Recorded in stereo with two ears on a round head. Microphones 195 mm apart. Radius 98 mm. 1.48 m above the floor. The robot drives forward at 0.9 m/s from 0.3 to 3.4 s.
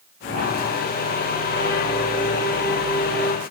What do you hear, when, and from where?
Only background noise.